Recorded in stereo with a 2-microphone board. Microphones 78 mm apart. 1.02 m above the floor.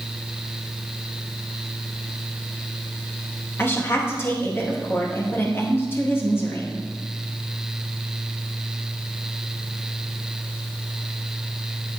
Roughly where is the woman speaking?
Left.